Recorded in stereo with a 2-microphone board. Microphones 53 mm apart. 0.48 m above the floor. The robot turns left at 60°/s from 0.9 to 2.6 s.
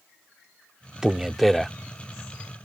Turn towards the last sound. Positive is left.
turn(degrees=115)